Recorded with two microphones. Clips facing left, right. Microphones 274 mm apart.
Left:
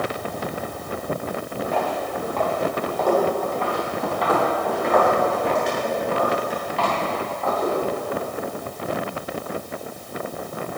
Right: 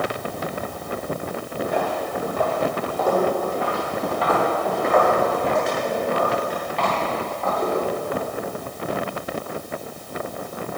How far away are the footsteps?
About 1.7 m.